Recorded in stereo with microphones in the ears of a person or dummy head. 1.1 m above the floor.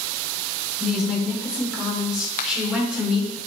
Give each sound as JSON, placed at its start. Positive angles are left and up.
{"t": 0.8, "sound": "a woman speaking", "side_deg": -5, "distance_m": 3.0}
{"t": 2.4, "sound": "a finger snap", "side_deg": 40, "distance_m": 1.0}